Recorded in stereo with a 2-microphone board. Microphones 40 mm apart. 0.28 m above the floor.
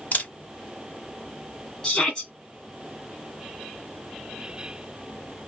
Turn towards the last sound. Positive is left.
turn(degrees=25)  # may be behind; listen again after turning